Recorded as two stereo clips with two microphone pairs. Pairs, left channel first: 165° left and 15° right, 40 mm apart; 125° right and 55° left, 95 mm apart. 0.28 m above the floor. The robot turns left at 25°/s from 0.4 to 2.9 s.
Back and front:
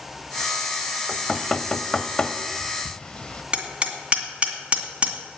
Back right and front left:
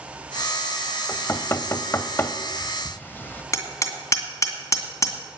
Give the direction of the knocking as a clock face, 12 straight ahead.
4 o'clock.